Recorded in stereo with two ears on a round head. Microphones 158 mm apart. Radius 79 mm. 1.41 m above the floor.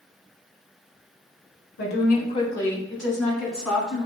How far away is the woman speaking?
About 1.1 m.